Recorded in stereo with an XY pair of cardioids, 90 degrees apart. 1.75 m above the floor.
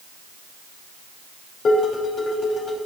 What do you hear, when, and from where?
1.6 s dishes clattering: 65° left, 4.5 m